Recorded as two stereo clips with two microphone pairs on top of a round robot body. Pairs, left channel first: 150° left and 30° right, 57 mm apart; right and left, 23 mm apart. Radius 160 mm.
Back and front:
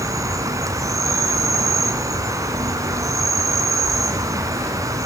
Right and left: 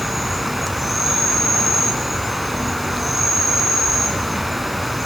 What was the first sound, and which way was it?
An insect, 5° left.